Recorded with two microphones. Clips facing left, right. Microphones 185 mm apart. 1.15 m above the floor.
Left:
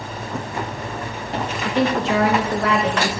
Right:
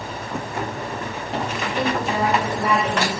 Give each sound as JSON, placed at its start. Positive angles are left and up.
{"t": 1.6, "sound": "a woman speaking", "side_deg": 85, "distance_m": 1.2}